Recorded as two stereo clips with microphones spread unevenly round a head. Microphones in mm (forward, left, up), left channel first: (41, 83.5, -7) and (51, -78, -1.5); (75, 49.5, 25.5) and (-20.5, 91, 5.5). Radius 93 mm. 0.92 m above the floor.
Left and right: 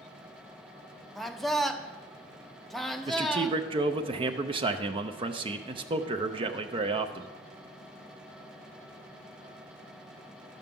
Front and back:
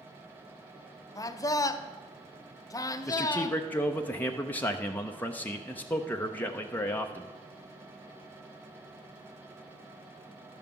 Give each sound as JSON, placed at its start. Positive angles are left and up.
{"t": 1.1, "sound": "a man speaking", "azimuth_deg": 10, "distance_m": 0.6}
{"t": 3.1, "sound": "a man speaking", "azimuth_deg": -100, "distance_m": 0.5}